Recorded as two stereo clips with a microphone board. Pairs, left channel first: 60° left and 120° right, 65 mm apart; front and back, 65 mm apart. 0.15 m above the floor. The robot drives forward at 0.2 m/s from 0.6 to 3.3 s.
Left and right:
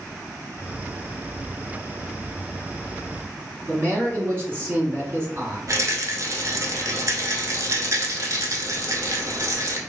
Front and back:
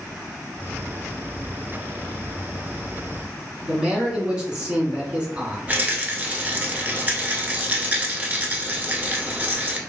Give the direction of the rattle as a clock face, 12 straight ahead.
4 o'clock.